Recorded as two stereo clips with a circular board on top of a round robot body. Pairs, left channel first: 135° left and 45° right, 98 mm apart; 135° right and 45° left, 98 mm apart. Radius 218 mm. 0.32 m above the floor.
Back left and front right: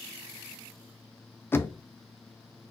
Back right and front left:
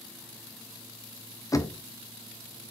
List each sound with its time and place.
1.5 s knocking: 170° right, 0.6 m